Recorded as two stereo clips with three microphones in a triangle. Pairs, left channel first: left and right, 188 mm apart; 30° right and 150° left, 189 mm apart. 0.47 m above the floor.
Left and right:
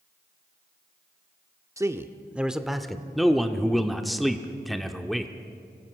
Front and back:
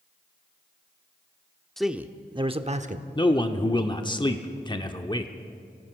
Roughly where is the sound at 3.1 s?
Ahead.